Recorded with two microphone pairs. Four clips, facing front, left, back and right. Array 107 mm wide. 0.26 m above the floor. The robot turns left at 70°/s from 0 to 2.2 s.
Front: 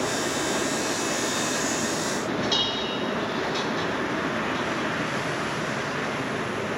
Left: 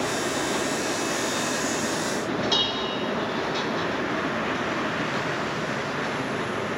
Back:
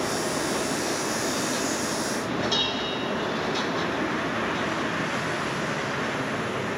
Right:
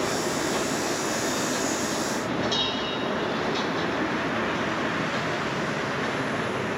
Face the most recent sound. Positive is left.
turn(degrees=85)